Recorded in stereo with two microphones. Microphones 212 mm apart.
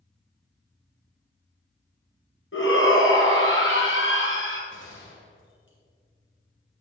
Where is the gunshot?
65° left (ahead or behind), 3 m.